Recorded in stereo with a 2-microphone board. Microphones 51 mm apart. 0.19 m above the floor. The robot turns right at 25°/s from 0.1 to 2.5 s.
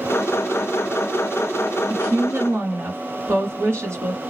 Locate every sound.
1.9 s a woman speaking: 50° right (ahead or behind), 2 m; by 4.2 s 55° right (ahead or behind), 2 m